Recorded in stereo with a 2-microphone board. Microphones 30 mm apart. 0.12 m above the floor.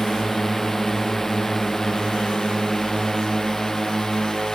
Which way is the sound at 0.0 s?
15° left (ahead or behind).